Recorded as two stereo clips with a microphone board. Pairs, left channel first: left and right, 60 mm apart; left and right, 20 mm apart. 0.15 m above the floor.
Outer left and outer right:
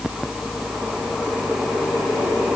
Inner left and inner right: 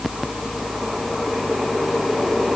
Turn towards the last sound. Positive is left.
No sound to turn to.